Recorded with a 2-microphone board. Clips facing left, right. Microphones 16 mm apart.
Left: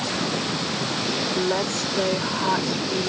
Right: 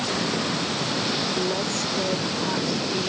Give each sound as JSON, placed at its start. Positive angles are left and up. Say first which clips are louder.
{"t": 1.4, "sound": "a woman speaking", "louder": "left 2 dB", "side_deg": 35}